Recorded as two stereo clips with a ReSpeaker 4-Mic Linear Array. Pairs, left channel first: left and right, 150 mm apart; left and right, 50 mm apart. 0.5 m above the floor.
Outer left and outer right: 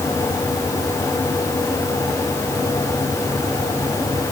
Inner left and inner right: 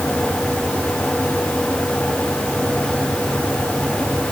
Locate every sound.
Only background noise.